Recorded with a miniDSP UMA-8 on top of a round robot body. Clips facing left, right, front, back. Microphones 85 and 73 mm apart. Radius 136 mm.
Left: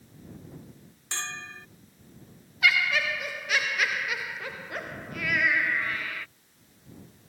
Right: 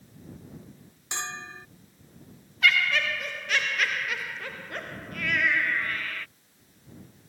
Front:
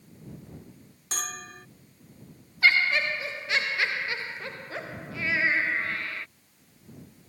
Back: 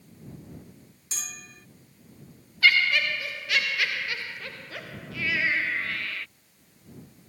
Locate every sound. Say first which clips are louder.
1.1 s a bell: right 1 dB, front 7 dB; 20° right
2.6 s laughter: right 1 dB, back 1 dB; 15° left